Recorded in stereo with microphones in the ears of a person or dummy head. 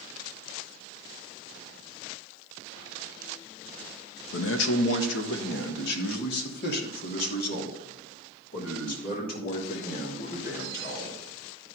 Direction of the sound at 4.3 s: 85° left.